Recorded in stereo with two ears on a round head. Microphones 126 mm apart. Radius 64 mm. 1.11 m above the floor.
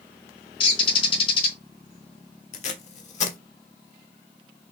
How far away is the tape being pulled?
About 1.2 m.